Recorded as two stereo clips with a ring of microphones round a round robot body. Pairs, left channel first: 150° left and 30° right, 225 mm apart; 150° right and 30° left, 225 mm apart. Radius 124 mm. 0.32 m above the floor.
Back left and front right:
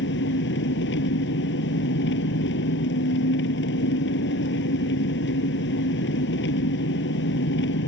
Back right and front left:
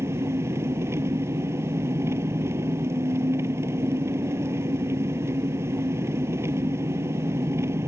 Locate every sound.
0.0 s an engine running: 110° left